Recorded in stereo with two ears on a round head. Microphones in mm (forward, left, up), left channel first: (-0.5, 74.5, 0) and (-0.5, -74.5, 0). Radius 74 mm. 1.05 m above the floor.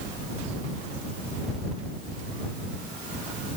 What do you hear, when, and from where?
Only background noise.